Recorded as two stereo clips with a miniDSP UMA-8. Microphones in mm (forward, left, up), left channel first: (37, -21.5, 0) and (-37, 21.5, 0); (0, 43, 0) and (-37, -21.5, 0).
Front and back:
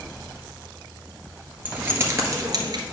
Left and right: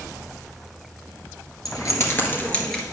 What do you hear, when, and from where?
1.6 s keys jangling: 80° left, 1.8 m; by 2.8 s 145° left, 1.7 m